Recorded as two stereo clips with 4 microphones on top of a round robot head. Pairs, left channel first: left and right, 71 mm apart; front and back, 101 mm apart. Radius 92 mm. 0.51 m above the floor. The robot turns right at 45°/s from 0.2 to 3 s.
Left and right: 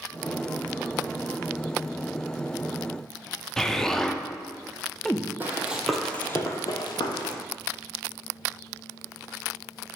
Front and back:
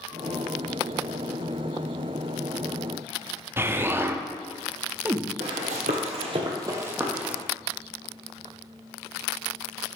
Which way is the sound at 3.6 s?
160° left.